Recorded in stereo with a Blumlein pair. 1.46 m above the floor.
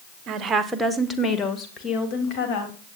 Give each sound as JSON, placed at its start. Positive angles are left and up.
{"t": 0.3, "sound": "a woman speaking", "azimuth_deg": -30, "distance_m": 1.3}